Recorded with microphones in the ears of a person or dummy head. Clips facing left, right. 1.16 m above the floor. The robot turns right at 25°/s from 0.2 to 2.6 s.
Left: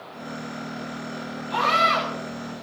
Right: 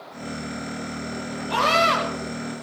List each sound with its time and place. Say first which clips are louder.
1.5 s a scream: right 3 dB; 70° right (ahead or behind), 5.5 m; by 2.0 s 80° right, 5.5 m